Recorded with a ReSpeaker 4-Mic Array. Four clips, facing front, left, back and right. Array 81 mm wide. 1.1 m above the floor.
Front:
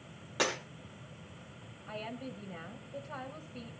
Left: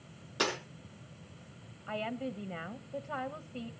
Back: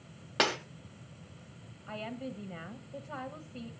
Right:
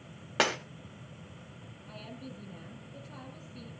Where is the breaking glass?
110° right, 3 m.